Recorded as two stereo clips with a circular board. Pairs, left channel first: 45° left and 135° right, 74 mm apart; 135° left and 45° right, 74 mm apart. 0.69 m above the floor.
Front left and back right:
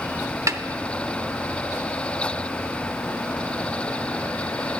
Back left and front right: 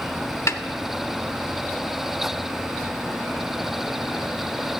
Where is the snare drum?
175° right, 0.7 m.